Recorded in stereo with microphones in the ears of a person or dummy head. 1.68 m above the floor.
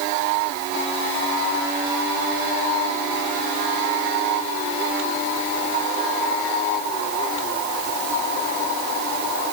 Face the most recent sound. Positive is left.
No sound to turn to.